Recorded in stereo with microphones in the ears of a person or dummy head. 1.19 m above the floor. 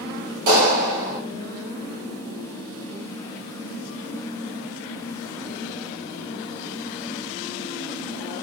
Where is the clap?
70° right (ahead or behind), 3 m.